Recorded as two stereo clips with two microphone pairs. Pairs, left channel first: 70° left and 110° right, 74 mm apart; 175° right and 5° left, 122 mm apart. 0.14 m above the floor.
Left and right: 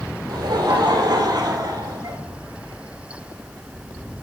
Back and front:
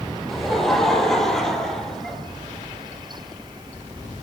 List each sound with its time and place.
0.3 s laughter: 90° right, 5 m